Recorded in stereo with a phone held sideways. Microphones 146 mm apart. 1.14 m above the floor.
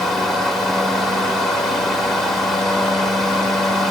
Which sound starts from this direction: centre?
A fan, at 0.0 s.